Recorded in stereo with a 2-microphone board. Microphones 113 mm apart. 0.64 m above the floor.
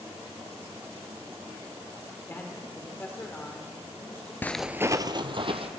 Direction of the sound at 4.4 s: 20° left (ahead or behind).